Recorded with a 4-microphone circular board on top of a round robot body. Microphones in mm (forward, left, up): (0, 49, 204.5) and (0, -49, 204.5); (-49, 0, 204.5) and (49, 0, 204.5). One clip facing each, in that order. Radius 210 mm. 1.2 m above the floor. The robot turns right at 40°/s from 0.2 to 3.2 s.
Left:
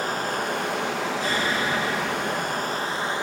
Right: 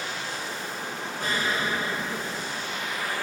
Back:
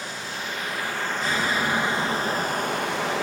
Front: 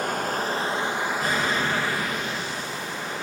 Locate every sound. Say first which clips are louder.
0.0 s running water: left 7 dB, front 8 dB; 40° left, 1.2 m; by 3.2 s 160° left, 1.2 m
1.2 s an explosion: right 1 dB, back 2 dB; 50° right, 8 m; by 2.8 s 15° left, 8 m